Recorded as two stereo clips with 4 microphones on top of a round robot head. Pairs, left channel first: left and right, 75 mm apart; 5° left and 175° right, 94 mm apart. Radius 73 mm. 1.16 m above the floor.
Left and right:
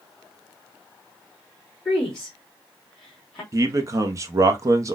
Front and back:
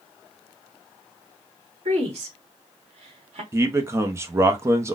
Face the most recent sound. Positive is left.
turn(degrees=-120)